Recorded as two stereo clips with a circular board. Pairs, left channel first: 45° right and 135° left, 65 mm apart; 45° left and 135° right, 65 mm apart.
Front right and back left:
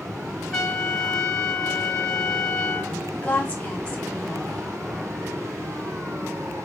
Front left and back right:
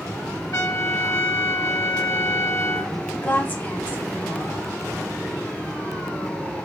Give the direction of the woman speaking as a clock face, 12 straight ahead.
12 o'clock.